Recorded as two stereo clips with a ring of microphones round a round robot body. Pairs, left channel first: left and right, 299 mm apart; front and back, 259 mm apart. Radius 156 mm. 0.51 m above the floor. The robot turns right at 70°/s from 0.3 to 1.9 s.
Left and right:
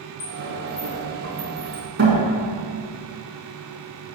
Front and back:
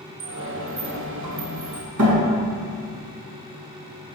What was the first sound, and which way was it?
A sliding door, 100° left.